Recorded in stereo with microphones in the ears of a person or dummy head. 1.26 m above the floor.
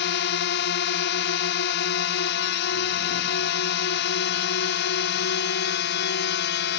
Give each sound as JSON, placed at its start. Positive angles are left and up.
{"t": 0.0, "sound": "a drone", "side_deg": 55}